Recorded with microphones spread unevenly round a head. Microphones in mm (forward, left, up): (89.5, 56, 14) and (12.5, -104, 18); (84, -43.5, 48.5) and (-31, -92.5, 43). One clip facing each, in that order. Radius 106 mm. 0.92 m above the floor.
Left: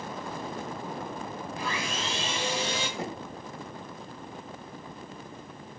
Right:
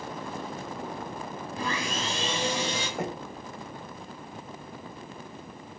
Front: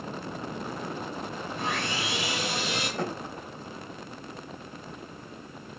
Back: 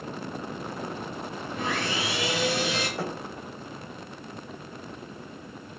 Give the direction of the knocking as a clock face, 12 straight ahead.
2 o'clock.